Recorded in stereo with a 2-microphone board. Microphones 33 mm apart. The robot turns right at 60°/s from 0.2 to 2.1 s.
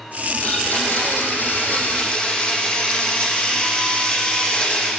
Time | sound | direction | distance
0.4 | a blender | 40° left | 8 m